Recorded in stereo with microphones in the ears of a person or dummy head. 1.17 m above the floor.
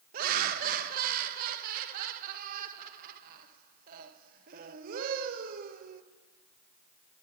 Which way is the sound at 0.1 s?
50° right (ahead or behind).